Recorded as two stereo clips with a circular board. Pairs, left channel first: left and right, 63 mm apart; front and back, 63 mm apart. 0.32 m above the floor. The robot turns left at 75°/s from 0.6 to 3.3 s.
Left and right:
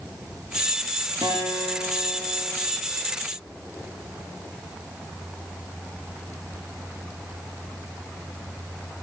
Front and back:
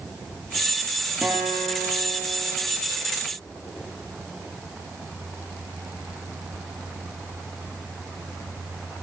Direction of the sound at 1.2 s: 100° right.